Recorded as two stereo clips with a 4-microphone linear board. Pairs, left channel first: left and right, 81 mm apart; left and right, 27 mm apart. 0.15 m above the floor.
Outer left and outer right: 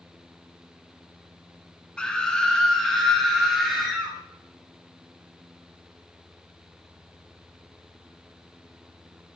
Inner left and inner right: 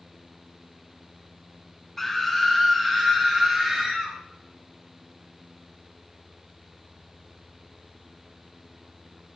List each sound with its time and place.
2.0 s a scream: 10° left (ahead or behind), 1.4 m; by 4.2 s centre (ahead or behind), 3 m